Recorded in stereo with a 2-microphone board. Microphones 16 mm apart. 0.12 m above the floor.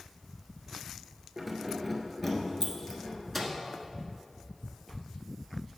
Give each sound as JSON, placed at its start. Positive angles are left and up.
{"t": 1.4, "sound": "keys jangling", "side_deg": -15, "distance_m": 1.1}
{"t": 3.3, "sound": "a microwave", "side_deg": 0, "distance_m": 0.9}